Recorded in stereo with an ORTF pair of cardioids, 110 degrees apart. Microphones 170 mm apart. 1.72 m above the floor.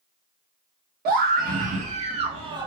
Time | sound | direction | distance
1.1 | a scream | 65° right | 1.5 m